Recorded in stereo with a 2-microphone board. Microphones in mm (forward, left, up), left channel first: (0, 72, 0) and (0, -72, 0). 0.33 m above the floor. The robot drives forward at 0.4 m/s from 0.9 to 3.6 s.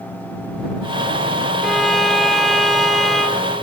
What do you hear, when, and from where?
1.6 s a violin: centre (ahead or behind), 0.6 m